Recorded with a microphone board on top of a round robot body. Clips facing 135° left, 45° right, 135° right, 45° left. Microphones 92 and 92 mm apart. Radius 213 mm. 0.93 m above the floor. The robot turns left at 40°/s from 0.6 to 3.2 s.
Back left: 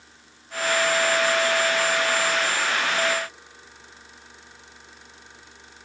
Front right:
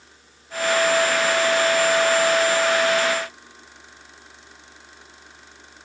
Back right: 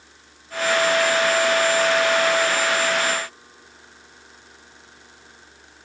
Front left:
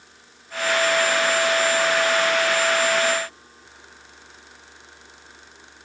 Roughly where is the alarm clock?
No alarm clock in this recording.